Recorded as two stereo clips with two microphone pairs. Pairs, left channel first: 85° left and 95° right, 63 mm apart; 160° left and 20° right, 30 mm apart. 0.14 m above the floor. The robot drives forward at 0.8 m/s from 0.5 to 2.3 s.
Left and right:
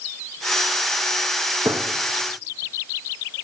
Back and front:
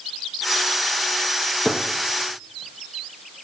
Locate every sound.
1.6 s a gunshot: 100° right, 1.4 m; by 1.8 s 105° right, 1.4 m